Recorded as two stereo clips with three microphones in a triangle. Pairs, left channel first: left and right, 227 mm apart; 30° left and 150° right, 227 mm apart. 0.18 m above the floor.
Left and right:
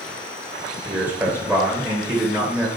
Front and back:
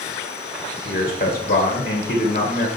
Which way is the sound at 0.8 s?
10° right.